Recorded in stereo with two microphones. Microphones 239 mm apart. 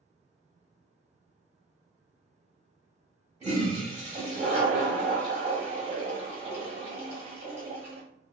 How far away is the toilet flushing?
About 1.8 m.